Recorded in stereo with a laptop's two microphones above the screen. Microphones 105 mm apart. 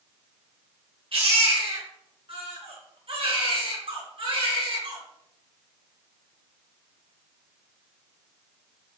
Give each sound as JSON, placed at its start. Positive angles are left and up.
{"t": 1.1, "sound": "a baby crying", "side_deg": -60, "distance_m": 3.5}